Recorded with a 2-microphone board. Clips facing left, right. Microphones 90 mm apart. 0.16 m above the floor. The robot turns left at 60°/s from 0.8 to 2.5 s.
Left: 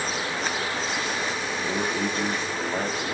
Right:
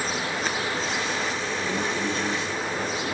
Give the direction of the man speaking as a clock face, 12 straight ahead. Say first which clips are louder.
Left 2 dB; 6 o'clock.